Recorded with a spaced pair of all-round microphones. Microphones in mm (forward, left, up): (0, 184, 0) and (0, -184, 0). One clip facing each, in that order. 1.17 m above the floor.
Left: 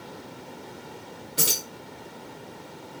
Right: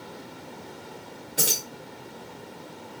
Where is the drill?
I don't hear a drill.